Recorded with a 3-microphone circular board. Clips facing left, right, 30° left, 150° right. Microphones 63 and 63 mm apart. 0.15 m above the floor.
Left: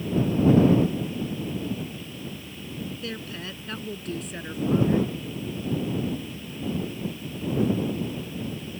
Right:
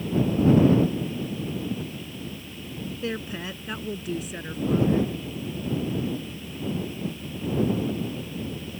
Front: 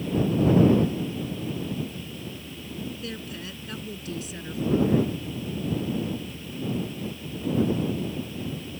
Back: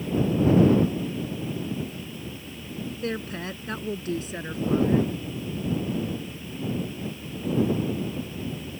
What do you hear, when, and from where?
3.0 s a woman speaking: 140° right; by 5.0 s 165° left